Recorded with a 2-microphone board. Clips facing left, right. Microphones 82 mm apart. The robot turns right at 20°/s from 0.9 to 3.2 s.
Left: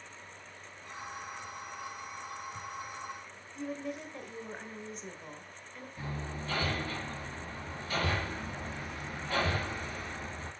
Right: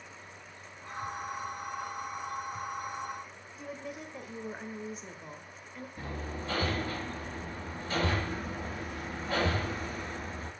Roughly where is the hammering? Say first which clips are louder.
Even; right.